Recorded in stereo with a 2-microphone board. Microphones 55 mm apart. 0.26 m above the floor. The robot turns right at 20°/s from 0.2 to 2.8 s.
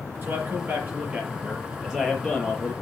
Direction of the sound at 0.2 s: 40° right.